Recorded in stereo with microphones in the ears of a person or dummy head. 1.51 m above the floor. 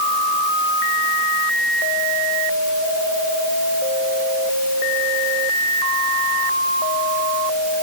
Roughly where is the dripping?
I don't hear dripping.